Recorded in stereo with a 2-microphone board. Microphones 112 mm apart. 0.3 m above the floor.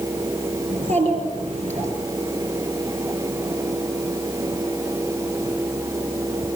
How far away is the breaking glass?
I don't hear breaking glass.